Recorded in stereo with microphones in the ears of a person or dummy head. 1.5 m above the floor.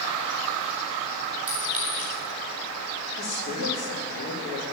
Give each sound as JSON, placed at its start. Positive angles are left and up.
{"t": 1.5, "sound": "a clink", "side_deg": -10, "distance_m": 4.5}
{"t": 3.2, "sound": "a woman speaking", "side_deg": 65, "distance_m": 3.5}